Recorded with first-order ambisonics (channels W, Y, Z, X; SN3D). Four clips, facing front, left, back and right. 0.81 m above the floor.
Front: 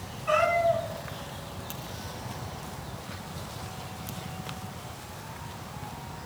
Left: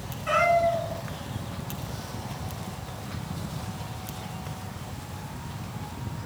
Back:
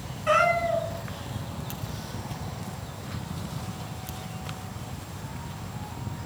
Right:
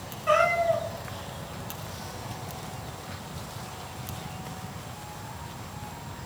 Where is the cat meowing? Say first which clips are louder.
Left 1 dB, back 1 dB; 165° left, 1.5 m.